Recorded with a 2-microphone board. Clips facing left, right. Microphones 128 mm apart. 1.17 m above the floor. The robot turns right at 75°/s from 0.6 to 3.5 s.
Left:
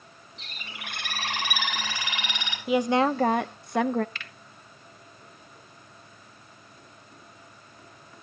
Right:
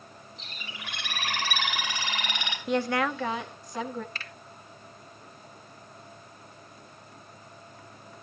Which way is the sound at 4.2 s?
35° right (ahead or behind).